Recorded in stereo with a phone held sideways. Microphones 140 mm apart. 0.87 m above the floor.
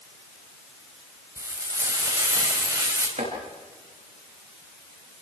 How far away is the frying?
About 4.5 m.